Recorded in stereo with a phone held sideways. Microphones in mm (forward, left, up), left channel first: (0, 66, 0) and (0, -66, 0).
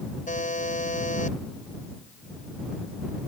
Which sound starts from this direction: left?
A buzzer, at 0.3 s.